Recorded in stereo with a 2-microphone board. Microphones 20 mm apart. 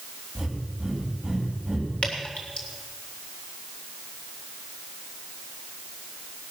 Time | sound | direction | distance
0.3 | breathing | 15° right (ahead or behind) | 5.5 m
2.0 | dripping | 75° left (ahead or behind) | 3 m